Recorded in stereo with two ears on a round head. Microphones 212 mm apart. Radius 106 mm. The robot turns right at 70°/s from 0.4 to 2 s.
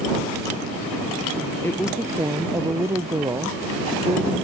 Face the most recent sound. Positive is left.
turn(degrees=-10)  # may be behind; listen again after turning